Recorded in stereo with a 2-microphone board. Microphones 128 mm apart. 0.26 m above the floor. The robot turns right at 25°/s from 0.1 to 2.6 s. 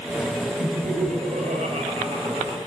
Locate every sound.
0.6 s laughter: 80° right, 5 m; by 2.6 s 30° right, 5 m